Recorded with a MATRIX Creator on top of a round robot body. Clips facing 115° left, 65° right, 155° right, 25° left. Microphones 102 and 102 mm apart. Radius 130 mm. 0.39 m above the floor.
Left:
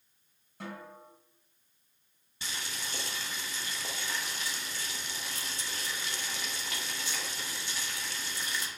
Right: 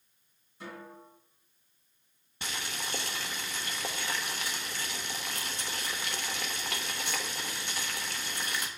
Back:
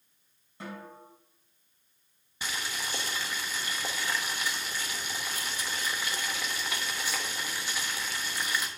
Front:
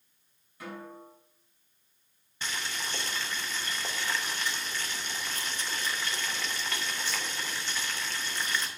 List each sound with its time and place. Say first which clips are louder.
0.6 s a snare drum: left 1 dB, front 1 dB; 140° left, 3.5 m
2.4 s boiling: right 3 dB, even; 80° right, 1.0 m